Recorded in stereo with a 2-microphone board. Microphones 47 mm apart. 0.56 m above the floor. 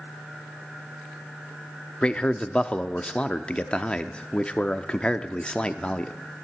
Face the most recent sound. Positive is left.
turn(degrees=20)  # may be behind; listen again after turning